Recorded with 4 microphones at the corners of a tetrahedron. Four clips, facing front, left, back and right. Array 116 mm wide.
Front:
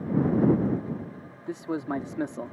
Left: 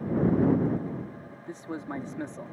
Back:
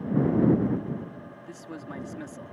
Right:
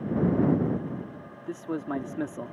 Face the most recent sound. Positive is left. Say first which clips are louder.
# right 5 dB, front 11 dB
turn(degrees=-30)